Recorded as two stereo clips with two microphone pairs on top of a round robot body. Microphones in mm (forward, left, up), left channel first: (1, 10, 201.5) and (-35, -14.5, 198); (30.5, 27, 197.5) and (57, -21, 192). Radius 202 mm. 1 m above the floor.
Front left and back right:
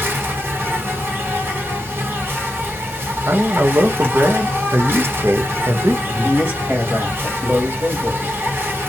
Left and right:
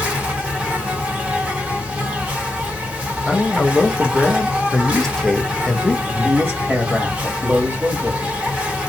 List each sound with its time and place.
0.0 s an insect: 125° right, 1.5 m
3.3 s a man speaking: 160° right, 0.8 m
6.0 s a woman speaking: 100° right, 1.7 m